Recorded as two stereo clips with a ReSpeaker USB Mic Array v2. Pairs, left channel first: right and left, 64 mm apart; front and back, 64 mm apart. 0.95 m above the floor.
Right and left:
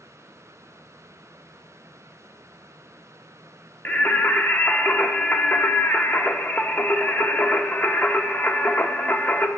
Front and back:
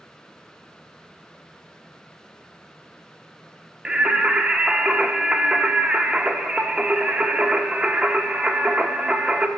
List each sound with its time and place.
3.9 s singing: 115° right, 0.5 m